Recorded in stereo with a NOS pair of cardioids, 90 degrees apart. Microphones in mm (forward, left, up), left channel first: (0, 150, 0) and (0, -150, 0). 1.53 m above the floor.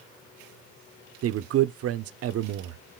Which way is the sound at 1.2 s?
50° right.